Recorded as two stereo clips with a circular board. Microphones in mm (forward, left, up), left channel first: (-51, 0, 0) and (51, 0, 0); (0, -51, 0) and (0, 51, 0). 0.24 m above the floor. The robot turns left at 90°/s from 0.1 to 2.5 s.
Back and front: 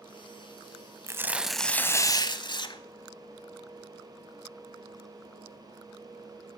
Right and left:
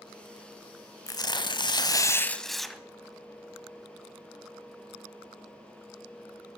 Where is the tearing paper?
50° right, 0.9 m; by 2.8 s straight behind, 0.9 m.